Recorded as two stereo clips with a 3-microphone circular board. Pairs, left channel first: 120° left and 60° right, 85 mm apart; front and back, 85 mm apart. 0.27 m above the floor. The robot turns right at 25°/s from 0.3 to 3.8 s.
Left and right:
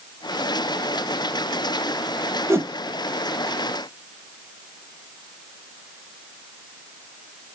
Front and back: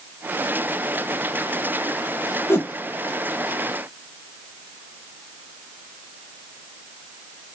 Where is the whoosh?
35° right, 0.7 m; by 2.7 s 30° right, 0.7 m.